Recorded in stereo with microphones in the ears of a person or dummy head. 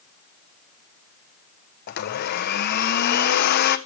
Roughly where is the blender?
Left.